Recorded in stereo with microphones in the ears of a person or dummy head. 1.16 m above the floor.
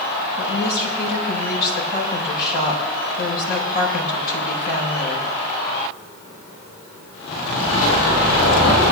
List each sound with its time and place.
0.4 s a woman speaking: 50° left (ahead or behind), 4.5 m